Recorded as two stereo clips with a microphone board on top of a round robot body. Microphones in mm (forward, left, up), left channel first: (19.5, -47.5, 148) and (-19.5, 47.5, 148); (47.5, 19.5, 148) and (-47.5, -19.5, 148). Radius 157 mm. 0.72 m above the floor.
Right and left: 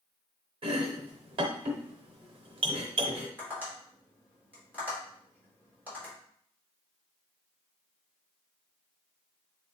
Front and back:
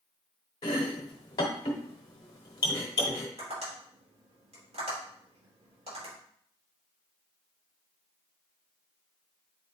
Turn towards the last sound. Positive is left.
turn(degrees=-175)